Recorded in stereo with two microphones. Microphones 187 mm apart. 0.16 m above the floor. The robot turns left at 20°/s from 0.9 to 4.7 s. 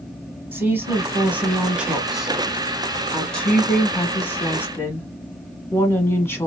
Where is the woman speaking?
10° right (ahead or behind), 1.2 m; by 6.5 s 15° left (ahead or behind), 1.2 m.